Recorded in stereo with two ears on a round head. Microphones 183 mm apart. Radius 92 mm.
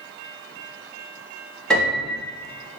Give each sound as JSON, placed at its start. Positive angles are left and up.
{"t": 1.7, "sound": "a piano", "side_deg": 5, "distance_m": 0.9}